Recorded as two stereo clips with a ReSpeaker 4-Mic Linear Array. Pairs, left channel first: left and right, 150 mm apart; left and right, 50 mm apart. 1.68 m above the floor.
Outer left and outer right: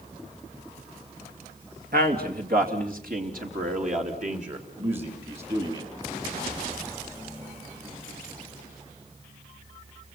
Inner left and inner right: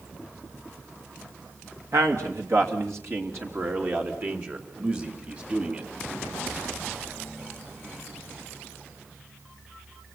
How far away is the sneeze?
No sneeze in this recording.